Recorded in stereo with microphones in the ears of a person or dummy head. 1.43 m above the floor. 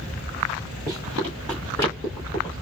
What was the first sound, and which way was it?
Running footsteps, 20° right (ahead or behind).